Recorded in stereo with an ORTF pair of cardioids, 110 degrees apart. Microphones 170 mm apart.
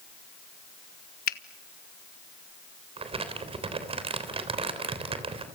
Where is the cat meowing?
No cat meowing in this recording.